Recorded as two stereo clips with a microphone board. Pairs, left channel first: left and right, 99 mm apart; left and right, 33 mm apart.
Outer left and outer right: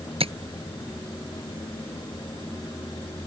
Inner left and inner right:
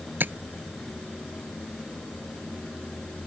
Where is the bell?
I don't hear a bell.